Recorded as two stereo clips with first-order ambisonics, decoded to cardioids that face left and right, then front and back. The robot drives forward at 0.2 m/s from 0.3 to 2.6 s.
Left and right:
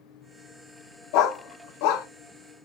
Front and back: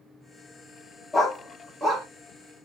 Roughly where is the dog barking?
Left.